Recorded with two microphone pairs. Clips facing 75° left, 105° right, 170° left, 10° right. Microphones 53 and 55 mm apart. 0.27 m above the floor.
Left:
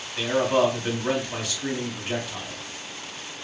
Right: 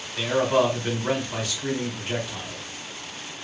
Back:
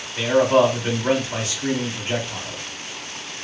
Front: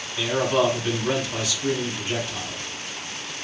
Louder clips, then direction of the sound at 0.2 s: Even, back 5 dB; 165° left.